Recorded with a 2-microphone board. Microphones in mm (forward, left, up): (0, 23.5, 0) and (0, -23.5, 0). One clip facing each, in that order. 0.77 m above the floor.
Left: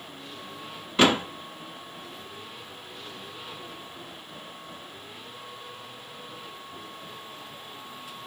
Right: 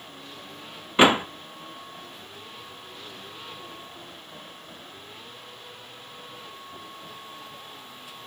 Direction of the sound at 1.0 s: 25° right (ahead or behind).